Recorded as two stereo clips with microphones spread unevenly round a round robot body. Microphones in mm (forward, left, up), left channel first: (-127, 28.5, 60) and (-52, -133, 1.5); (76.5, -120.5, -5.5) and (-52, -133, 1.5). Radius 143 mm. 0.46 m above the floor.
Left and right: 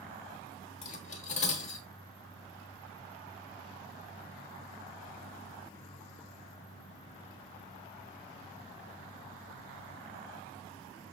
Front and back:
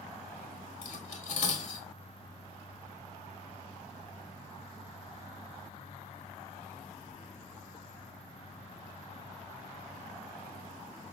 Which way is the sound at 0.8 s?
50° left.